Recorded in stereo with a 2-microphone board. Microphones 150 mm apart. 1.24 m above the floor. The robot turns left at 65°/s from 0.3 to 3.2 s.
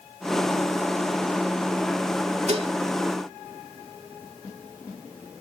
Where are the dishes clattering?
45° right (ahead or behind); by 2.8 s 30° right (ahead or behind).